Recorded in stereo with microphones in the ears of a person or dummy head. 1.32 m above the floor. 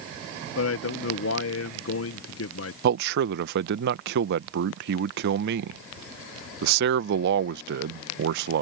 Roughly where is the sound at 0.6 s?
Left.